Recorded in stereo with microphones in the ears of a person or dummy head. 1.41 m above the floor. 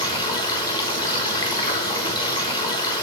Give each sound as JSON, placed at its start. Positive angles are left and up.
{"t": 0.0, "sound": "running water", "side_deg": 25, "distance_m": 1.2}